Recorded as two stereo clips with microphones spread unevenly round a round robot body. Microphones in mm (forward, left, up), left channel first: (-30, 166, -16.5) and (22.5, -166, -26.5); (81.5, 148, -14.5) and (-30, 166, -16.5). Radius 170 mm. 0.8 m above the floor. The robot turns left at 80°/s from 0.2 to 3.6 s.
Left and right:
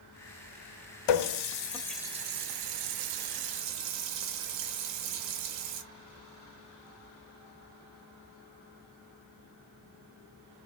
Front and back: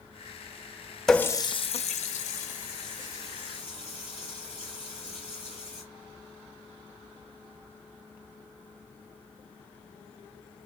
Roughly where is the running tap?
Left.